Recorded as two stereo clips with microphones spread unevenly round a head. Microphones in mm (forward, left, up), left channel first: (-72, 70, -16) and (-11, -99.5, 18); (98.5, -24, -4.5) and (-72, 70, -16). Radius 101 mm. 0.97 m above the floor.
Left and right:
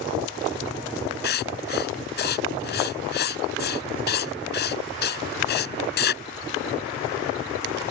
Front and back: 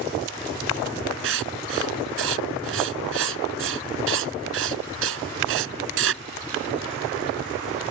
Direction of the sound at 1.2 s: 140° left.